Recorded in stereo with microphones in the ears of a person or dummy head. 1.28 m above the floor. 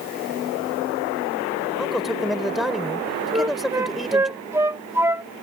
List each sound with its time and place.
1.8 s a man speaking: centre (ahead or behind)
3.3 s a flute: 10° right (ahead or behind)